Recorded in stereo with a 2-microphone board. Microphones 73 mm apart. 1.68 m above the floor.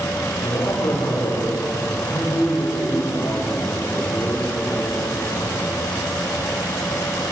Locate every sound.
0.4 s a man speaking: 70° left (ahead or behind), 3.5 m; by 5.8 s 15° left (ahead or behind), 6 m